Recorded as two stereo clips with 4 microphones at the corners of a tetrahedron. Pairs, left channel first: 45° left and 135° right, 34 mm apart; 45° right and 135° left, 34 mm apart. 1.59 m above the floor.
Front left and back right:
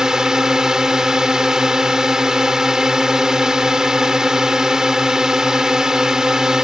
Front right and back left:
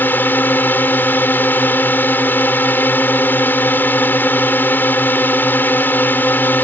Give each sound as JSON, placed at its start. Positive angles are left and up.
{"t": 0.0, "sound": "a drone", "azimuth_deg": -65}